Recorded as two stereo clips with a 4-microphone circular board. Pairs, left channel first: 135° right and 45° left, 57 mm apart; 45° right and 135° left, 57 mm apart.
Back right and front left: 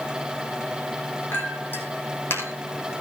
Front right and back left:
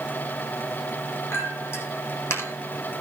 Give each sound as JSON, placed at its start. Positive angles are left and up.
{"t": 1.3, "sound": "a clink", "azimuth_deg": -85, "distance_m": 4.0}